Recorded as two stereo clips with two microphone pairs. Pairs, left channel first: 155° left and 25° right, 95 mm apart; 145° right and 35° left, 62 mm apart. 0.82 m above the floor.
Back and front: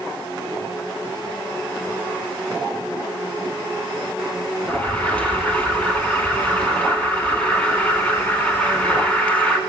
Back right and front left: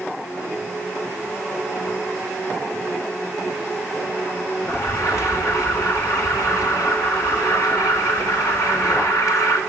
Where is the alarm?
130° right, 4.5 m.